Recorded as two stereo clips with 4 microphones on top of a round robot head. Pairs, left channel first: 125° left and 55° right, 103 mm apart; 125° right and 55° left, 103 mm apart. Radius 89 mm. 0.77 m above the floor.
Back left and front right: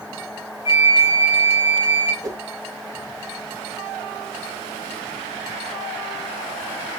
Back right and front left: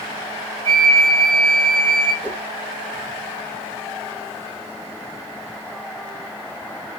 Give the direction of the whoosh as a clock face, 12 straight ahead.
12 o'clock.